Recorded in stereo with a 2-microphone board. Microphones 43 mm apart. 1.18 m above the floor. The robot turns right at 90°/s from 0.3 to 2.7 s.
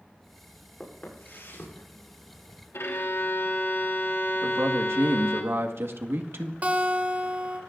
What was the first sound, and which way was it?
Footsteps, 10° left (ahead or behind).